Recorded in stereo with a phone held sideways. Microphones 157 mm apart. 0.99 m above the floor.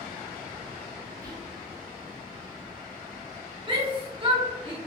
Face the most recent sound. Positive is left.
turn(degrees=-35)  # may be behind; listen again after turning